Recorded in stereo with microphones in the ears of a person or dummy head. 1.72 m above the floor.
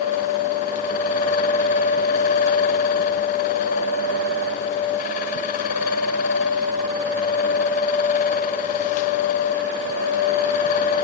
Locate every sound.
Only background noise.